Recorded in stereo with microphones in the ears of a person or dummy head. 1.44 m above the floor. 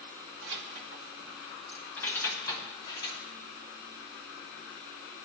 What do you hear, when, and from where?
0.4 s keys jangling: 60° right (ahead or behind), 1.0 m; by 3.2 s 30° left (ahead or behind), 2.5 m